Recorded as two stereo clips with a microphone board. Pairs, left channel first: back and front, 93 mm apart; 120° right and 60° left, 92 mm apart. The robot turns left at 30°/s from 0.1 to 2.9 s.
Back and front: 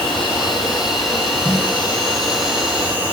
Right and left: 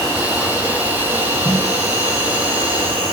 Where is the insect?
155° left, 0.9 m; by 3.1 s 75° left, 0.9 m.